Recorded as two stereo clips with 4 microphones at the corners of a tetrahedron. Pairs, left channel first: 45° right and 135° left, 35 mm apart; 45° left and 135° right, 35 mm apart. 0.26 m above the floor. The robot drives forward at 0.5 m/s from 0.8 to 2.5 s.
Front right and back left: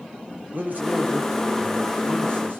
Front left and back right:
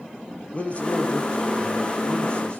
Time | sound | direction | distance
0.5 | a man speaking | 100° left | 6 m